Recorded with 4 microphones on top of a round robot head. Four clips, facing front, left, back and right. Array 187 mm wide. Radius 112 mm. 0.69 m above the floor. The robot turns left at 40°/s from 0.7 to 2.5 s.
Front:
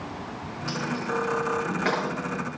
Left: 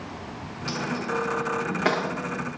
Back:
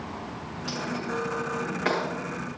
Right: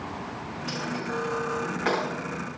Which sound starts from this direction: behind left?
A dropped coin, at 0.7 s.